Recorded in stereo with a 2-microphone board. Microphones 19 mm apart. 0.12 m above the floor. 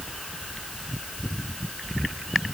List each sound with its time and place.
Only background noise.